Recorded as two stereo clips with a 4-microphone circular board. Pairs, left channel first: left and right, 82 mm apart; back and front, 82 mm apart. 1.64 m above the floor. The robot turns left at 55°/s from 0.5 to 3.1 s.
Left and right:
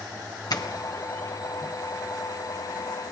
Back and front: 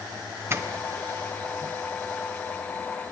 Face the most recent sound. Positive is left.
turn(degrees=-85)